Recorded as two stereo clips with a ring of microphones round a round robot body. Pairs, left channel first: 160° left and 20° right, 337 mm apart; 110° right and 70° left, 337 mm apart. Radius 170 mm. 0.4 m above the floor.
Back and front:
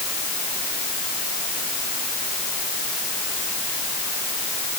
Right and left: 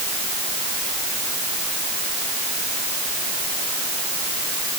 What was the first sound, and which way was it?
Only background noise.